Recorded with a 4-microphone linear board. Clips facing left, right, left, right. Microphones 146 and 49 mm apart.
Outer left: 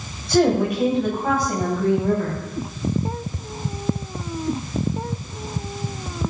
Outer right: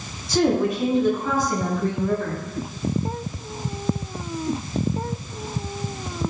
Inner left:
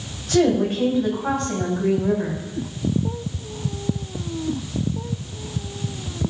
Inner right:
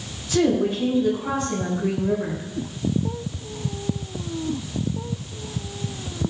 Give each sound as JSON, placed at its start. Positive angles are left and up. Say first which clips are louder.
{"t": 0.3, "sound": "a woman speaking", "louder": "outer left 2 dB, inner left 2 dB", "side_deg": 60, "distance_m": 8.5}